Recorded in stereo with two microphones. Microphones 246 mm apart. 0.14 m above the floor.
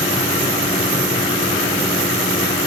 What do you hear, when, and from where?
Only background noise.